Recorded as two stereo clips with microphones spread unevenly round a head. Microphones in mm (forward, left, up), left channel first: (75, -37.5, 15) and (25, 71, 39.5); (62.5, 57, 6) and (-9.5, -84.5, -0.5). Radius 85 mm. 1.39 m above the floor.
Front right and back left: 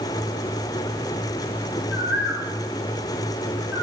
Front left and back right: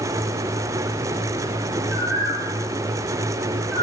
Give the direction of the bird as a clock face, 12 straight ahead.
5 o'clock.